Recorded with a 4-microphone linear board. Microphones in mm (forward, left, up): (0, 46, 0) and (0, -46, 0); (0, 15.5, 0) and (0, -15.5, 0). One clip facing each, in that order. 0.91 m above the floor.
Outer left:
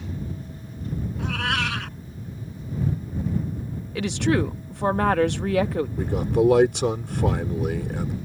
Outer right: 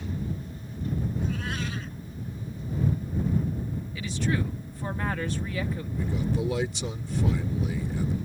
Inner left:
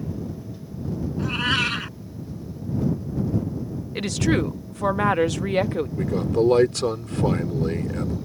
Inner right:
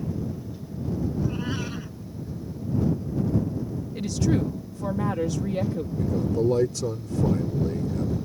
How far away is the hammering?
I don't hear hammering.